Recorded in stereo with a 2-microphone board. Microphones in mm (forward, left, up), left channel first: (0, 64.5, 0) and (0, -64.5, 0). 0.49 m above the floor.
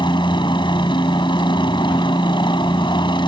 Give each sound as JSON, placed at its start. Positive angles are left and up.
{"t": 0.0, "sound": "a helicopter", "side_deg": 40}